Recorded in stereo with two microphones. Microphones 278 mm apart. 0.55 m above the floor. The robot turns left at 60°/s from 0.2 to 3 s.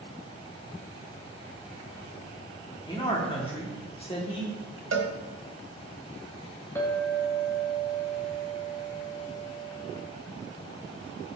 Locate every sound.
2.9 s a man speaking: 15° left (ahead or behind), 1.3 m; by 4.8 s 20° left (ahead or behind), 1.3 m
4.9 s a cowbell: 70° right (ahead or behind), 0.9 m
6.8 s a clink: 10° left (ahead or behind), 1.8 m